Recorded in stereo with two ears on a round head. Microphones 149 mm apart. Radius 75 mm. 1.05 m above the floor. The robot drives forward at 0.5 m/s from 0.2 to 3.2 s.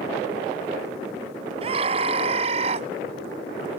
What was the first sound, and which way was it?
A scream, 35° right (ahead or behind).